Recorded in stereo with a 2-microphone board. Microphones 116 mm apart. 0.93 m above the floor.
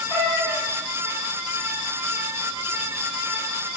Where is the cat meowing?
15° left (ahead or behind), 1.6 m.